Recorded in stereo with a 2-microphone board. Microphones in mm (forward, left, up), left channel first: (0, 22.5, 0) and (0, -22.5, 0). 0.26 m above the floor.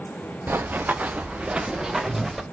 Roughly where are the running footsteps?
Right.